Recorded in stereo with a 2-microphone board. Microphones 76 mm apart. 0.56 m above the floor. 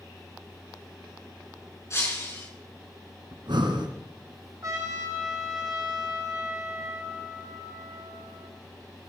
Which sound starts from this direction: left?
Breaking glass, at 1.9 s.